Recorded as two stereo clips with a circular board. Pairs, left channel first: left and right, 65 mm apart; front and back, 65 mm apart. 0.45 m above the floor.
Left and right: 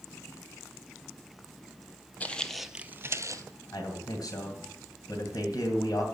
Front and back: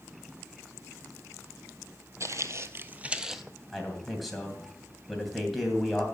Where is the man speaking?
90° left, 2.5 m.